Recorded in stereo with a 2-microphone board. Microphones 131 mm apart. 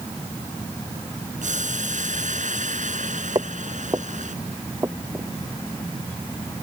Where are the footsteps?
35° right (ahead or behind); by 5.3 s 20° right (ahead or behind).